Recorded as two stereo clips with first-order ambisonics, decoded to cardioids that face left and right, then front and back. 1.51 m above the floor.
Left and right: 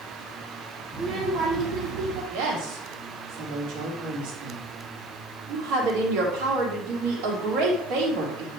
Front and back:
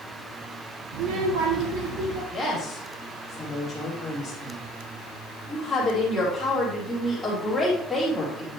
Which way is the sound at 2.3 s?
95° right.